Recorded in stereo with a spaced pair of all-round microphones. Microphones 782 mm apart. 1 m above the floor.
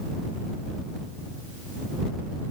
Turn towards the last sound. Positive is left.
No sound to turn to.